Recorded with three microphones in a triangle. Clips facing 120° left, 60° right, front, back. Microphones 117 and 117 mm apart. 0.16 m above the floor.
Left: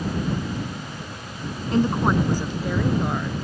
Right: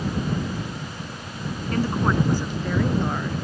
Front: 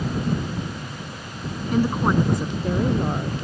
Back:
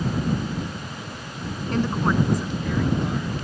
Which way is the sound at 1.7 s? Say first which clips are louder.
Left 3 dB, front 2 dB; 75° left.